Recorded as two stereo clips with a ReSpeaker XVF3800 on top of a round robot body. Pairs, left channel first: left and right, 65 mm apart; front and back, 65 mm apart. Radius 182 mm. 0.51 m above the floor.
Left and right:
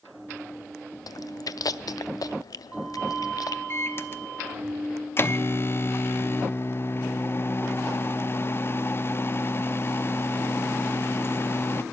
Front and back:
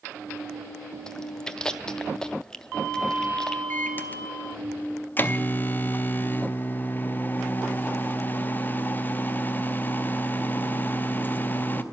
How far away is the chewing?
About 0.7 m.